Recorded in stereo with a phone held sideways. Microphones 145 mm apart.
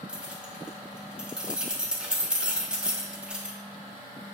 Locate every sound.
0.1 s keys jangling: 5° right (ahead or behind), 1.8 m